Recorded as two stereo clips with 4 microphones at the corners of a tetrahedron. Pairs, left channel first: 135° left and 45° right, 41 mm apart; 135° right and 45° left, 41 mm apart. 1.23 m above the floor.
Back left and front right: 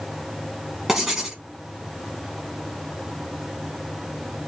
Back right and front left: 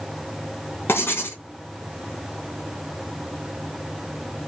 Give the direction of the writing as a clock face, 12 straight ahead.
4 o'clock.